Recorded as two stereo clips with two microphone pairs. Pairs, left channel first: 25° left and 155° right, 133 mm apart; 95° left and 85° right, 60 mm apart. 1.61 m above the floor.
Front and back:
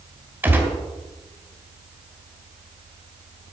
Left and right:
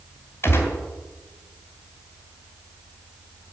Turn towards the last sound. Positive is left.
turn(degrees=130)